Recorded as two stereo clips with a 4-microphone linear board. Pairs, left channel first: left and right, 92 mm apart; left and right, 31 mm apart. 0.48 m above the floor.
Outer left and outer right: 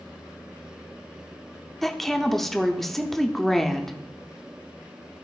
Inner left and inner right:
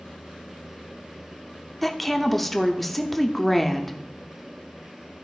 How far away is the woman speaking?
About 0.7 m.